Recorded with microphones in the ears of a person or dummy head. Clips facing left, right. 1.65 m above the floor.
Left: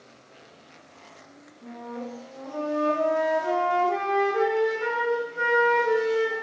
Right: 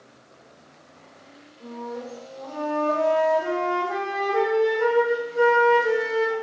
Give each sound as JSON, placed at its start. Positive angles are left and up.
{"t": 1.6, "sound": "a flute", "side_deg": -65, "distance_m": 1.4}